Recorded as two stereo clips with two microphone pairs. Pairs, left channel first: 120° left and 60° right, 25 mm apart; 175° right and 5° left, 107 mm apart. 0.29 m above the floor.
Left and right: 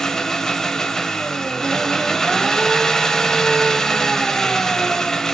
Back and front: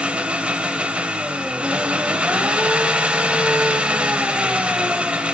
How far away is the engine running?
About 0.9 m.